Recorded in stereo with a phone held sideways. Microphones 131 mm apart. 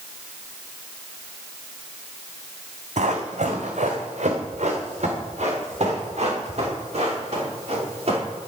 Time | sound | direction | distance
3.0 | running footsteps | 70° right (ahead or behind) | 2 m